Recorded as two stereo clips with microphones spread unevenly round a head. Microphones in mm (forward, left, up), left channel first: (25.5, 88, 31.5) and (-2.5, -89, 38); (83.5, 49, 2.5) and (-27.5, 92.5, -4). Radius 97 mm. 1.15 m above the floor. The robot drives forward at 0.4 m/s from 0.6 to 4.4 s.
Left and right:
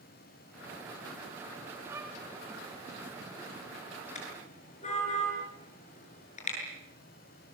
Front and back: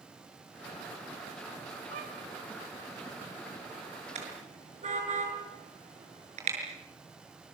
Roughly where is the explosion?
I don't hear an explosion.